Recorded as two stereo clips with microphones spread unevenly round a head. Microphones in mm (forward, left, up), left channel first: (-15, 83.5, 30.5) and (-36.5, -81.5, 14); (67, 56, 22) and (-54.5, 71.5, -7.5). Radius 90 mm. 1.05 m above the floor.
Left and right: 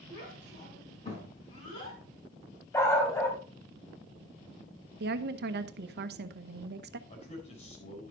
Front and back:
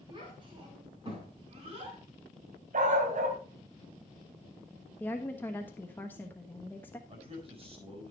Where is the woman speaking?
90° right, 0.9 m.